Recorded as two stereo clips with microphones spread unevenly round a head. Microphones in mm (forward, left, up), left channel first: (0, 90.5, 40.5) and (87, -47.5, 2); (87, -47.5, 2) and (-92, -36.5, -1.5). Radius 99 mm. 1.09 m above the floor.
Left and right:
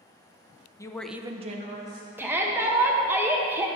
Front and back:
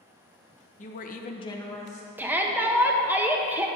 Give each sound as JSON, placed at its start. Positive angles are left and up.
{"t": 0.8, "sound": "a woman speaking", "azimuth_deg": 45, "distance_m": 0.7}
{"t": 2.2, "sound": "a shout", "azimuth_deg": -110, "distance_m": 0.6}